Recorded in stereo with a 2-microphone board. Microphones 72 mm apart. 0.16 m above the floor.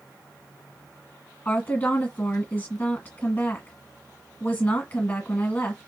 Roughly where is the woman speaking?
Left.